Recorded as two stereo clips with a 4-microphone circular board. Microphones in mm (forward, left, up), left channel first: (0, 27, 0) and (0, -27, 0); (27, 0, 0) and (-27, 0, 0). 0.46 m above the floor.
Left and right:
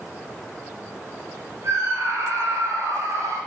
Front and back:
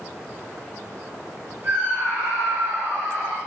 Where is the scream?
125° right, 9 m.